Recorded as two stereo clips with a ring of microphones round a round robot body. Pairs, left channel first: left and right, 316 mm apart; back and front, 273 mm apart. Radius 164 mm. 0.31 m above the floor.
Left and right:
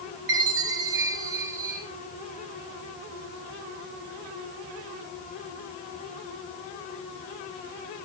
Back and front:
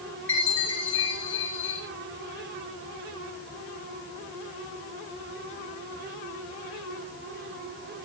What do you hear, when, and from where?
0.3 s a chime: 95° right, 5 m